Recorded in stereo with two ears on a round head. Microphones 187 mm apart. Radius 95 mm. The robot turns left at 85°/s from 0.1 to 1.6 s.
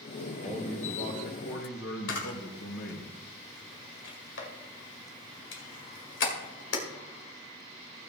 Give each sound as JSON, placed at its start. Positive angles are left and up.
{"t": 0.4, "sound": "a man speaking", "azimuth_deg": -160, "distance_m": 3.0}
{"t": 2.1, "sound": "a camera shutter", "side_deg": 60, "distance_m": 2.0}